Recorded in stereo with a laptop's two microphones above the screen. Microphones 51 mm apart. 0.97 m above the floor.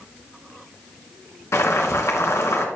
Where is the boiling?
75° left (ahead or behind), 3 m.